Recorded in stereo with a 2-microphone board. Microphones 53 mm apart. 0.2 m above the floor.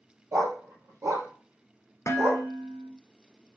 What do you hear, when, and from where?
0.3 s a dog barking: 75° right (ahead or behind), 2 m; by 2.5 s 60° right (ahead or behind), 2.5 m
2.1 s dishes clattering: 60° left (ahead or behind), 1.7 m